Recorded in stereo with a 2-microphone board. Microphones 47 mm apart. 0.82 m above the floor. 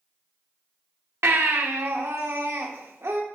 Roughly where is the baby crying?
Right.